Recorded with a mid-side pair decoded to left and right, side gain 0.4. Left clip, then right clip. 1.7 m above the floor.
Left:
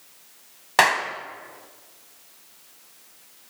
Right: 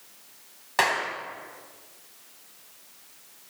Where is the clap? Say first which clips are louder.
Left 5 dB; 60° left, 1.4 m.